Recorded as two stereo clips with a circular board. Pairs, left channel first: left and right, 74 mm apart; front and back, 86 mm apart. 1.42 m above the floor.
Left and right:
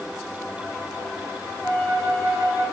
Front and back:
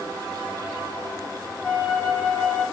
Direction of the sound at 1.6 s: 85° right.